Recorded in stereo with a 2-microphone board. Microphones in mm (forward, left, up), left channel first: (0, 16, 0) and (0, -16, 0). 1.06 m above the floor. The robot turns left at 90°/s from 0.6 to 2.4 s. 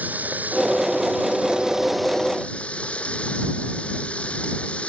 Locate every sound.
0.0 s running water: 60° right; by 4.9 s 140° left